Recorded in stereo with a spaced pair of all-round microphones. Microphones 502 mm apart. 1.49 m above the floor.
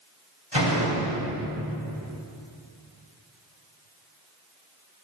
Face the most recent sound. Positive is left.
turn(degrees=55)  # may be behind; listen again after turning